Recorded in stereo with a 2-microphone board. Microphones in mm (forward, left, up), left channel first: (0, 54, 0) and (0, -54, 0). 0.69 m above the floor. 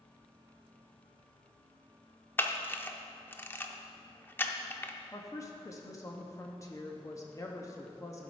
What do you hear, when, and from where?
2.4 s a camera shutter: 20° left (ahead or behind), 0.5 m
5.1 s a woman speaking: 30° left (ahead or behind), 0.7 m